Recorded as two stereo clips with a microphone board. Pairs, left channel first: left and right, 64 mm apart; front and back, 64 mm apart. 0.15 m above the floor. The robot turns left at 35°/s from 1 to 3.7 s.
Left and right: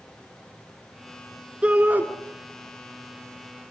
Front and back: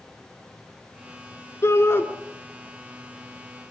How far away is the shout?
About 1.7 m.